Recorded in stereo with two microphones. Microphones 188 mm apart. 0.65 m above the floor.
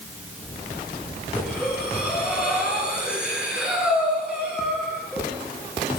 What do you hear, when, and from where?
1.4 s breathing: 5° right (ahead or behind), 9.5 m